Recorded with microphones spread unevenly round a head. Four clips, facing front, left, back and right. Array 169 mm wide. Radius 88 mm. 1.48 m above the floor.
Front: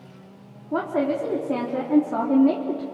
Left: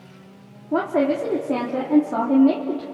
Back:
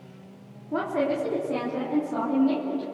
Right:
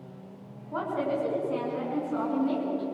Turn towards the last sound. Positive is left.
turn(degrees=50)